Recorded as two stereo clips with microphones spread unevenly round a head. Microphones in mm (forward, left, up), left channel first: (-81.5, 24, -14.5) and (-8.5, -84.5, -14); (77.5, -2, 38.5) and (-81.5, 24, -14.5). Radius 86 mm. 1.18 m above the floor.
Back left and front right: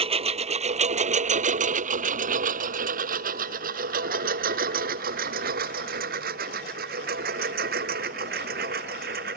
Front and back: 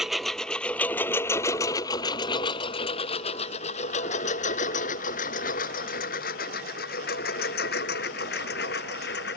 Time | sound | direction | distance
0.0 | a lawn mower | 100° right | ?